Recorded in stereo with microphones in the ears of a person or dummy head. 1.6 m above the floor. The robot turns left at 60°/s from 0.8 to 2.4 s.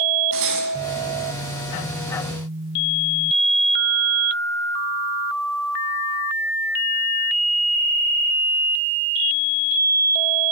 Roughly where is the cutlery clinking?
Right.